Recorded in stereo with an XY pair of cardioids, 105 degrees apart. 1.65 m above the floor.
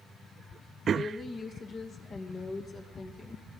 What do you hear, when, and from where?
0.9 s a woman speaking: 40° left, 2.5 m